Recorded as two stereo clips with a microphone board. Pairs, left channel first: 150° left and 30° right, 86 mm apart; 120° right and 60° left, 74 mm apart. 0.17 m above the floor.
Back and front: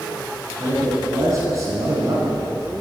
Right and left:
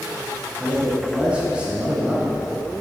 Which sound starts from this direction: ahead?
A man speaking, at 0.6 s.